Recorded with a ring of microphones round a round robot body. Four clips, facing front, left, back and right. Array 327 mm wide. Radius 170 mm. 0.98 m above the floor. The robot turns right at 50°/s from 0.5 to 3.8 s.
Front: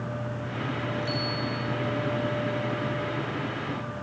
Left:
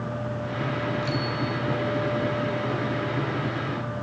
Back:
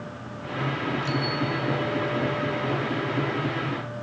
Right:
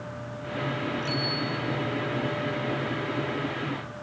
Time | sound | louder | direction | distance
1.0 | a bicycle bell | left 2 dB, back 3 dB | 165° right | 7 m